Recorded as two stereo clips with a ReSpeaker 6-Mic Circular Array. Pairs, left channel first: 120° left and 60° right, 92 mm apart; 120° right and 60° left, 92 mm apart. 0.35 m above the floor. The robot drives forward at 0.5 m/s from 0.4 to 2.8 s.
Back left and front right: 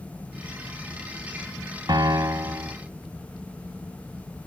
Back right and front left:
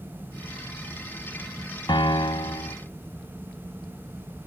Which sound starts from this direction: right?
A piano, at 1.9 s.